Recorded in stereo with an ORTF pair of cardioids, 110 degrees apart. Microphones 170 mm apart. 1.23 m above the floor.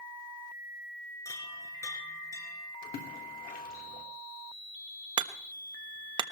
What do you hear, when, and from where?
1.2 s a chime: 20° left, 4 m
2.8 s a splash: 60° left, 3.5 m
5.2 s hammering: 30° right, 1.2 m